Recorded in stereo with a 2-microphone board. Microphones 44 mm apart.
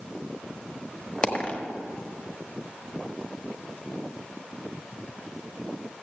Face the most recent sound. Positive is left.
turn(degrees=25)  # may be behind; listen again after turning